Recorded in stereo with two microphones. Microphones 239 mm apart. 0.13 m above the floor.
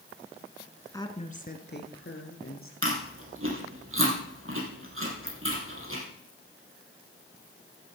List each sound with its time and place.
0.9 s a woman speaking: 15° left (ahead or behind), 1.4 m; by 2.7 s 60° left (ahead or behind), 3 m
2.8 s chewing: 60° right (ahead or behind), 4.5 m